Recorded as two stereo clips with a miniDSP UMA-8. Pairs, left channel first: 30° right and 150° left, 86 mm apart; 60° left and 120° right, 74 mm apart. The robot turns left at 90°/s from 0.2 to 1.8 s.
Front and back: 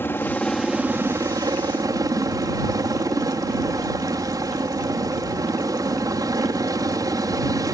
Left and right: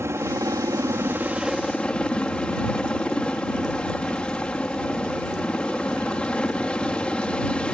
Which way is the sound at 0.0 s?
85° right.